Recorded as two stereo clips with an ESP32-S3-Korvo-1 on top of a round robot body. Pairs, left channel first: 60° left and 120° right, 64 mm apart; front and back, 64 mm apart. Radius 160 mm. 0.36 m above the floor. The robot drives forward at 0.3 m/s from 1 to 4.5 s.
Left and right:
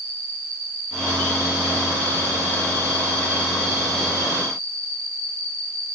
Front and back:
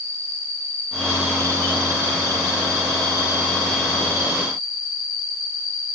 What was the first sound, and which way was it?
An insect, 70° right.